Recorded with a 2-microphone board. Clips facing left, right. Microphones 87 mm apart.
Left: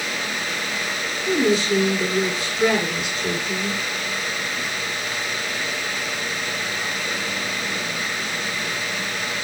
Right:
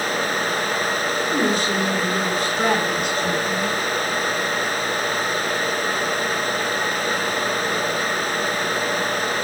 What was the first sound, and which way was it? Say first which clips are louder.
A woman speaking: left 4 dB; 45° right (ahead or behind).